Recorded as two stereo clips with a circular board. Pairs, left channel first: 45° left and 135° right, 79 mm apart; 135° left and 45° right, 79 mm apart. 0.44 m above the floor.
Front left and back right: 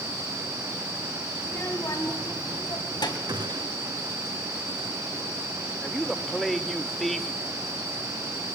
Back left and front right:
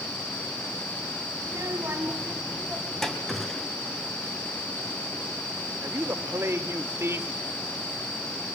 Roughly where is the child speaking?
Ahead.